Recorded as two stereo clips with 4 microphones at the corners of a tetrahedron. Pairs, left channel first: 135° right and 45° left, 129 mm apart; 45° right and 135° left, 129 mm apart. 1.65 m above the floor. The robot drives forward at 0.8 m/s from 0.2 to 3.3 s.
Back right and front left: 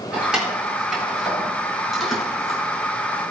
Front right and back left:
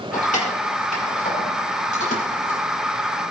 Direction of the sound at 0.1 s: 40° right.